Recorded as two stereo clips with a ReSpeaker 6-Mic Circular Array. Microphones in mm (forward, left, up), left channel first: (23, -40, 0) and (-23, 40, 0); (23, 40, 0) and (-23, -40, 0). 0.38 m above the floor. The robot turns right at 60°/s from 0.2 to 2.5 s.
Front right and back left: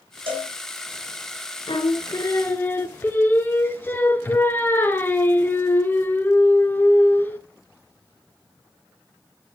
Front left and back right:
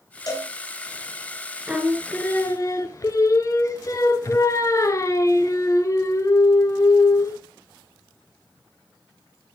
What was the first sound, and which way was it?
A cowbell, 100° left.